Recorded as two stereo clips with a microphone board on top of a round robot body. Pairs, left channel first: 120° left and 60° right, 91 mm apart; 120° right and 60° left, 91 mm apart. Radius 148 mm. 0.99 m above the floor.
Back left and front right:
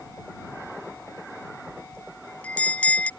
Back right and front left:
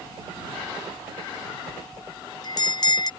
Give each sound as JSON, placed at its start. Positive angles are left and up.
{"t": 1.7, "sound": "a bell", "azimuth_deg": -165}